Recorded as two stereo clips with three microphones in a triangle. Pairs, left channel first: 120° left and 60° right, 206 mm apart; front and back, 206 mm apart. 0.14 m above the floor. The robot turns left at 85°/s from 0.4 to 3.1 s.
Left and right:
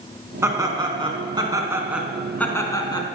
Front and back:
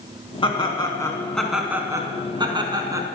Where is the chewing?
I don't hear chewing.